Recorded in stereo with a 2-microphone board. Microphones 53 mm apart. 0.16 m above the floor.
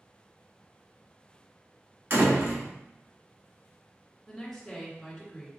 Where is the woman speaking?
5° left (ahead or behind), 1.8 m.